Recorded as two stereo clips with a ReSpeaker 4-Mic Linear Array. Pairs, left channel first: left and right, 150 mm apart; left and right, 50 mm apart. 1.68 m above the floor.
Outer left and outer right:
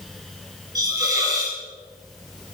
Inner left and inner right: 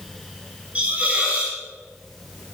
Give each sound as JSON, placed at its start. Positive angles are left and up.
{"t": 0.8, "sound": "a hiss", "side_deg": -25, "distance_m": 7.5}